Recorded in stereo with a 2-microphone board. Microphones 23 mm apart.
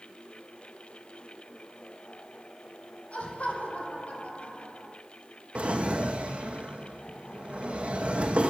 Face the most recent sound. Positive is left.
turn(degrees=-60)  # may be behind; listen again after turning